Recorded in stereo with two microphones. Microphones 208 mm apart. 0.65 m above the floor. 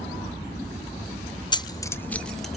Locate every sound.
1.5 s keys jangling: 25° left (ahead or behind), 0.5 m; by 2.6 s centre (ahead or behind), 1.0 m